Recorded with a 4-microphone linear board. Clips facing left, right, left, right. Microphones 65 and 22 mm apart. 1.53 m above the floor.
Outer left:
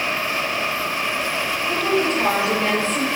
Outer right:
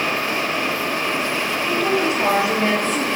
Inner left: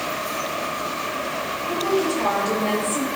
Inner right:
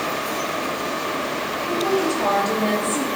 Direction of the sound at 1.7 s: 10° right (ahead or behind).